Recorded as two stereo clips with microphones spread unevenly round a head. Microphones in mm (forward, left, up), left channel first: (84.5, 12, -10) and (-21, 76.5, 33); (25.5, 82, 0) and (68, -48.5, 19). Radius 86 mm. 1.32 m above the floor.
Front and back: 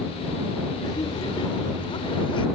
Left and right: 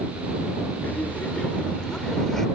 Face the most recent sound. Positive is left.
turn(degrees=20)